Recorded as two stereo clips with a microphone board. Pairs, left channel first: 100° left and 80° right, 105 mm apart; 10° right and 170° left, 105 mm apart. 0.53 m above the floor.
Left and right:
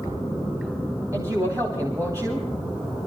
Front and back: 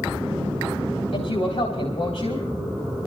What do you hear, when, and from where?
1.1 s a woman speaking: 20° right, 3.5 m